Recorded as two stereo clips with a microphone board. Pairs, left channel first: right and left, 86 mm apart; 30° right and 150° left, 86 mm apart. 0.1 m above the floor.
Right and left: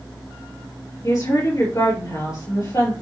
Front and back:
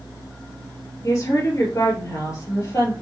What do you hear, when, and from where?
1.0 s a woman speaking: 65° right, 2.5 m